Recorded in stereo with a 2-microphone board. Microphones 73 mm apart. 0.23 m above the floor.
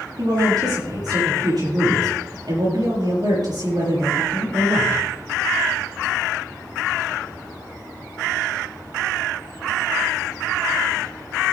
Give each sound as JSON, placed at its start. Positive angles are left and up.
{"t": 0.2, "sound": "a man speaking", "side_deg": -70, "distance_m": 6.5}